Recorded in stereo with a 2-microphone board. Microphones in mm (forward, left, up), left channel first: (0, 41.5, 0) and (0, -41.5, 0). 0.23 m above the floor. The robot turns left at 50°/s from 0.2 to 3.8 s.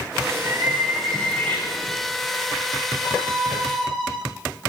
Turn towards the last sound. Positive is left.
turn(degrees=5)